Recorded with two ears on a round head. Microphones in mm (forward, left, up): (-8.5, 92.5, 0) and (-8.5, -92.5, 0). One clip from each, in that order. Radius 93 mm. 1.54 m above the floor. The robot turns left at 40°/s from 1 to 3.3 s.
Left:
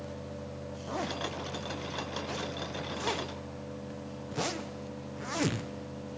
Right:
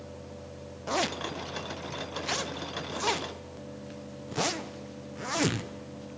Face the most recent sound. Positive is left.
turn(degrees=-15)  # may be behind; listen again after turning